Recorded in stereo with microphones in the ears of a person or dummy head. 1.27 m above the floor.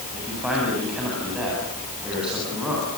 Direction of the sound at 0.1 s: 5° right (ahead or behind).